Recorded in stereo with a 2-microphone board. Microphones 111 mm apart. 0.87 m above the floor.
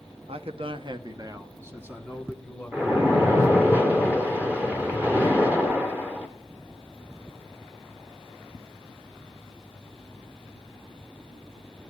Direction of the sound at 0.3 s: 65° right (ahead or behind).